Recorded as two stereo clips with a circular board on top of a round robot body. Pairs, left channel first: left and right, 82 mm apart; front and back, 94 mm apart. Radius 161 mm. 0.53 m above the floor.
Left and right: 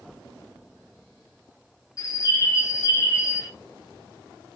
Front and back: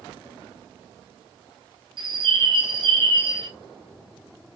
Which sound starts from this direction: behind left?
A bird, at 2.0 s.